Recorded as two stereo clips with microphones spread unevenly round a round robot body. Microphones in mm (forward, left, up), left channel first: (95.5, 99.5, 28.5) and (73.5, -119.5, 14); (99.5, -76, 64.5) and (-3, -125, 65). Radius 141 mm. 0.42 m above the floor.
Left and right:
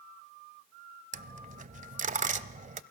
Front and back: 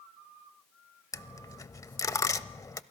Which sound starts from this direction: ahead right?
A dropped coin, at 1.1 s.